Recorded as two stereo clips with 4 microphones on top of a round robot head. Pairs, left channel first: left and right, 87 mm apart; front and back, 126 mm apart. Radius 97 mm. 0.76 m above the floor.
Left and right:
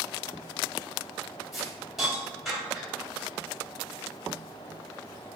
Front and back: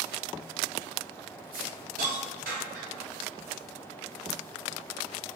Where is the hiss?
175° right, 1.5 m.